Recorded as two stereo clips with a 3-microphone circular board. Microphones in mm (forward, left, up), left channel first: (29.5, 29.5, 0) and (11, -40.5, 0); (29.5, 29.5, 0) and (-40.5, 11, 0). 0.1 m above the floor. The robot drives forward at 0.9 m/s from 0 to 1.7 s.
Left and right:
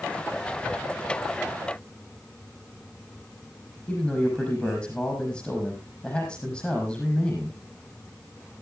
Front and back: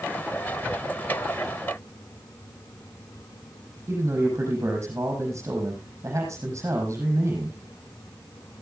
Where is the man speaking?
140° left, 5 m.